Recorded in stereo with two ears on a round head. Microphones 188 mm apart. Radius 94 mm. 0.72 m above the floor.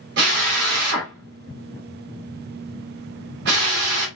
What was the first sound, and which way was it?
A drill, 55° right (ahead or behind).